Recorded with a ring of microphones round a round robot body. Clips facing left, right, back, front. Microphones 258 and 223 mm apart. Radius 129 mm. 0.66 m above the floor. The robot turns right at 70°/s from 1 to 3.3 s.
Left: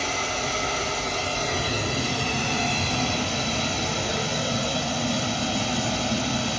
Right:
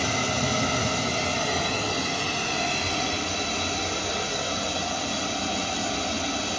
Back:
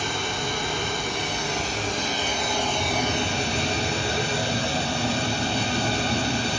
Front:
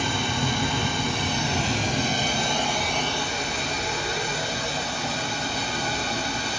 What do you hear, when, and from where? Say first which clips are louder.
0.0 s running water: right 3 dB, front 2 dB; 40° right, 1.5 m; by 6.6 s 120° left, 1.5 m